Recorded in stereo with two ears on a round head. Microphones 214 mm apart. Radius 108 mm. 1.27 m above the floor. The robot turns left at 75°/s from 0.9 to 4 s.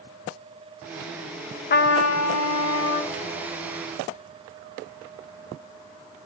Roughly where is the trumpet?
Behind left.